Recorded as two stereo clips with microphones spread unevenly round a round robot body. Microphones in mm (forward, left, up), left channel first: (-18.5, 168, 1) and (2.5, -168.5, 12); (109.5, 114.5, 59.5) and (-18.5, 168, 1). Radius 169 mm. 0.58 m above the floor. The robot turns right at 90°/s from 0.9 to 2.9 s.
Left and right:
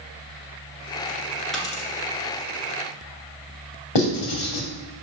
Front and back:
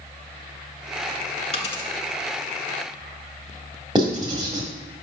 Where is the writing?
105° left, 2.5 m.